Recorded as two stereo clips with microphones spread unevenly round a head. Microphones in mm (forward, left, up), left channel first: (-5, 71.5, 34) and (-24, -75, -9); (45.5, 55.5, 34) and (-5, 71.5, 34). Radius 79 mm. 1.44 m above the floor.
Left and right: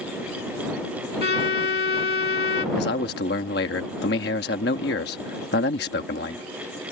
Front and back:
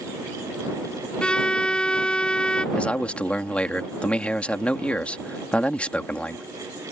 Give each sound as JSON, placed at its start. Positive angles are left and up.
{"t": 1.2, "sound": "a violin", "azimuth_deg": 55}
{"t": 2.8, "sound": "a man speaking", "azimuth_deg": 55}